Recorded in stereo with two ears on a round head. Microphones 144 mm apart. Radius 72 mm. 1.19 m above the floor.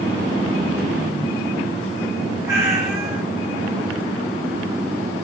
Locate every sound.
2.5 s a cat meowing: 20° right (ahead or behind), 2.0 m